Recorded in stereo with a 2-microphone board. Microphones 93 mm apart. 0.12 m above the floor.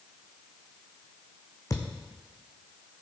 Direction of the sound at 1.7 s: 35° left (ahead or behind).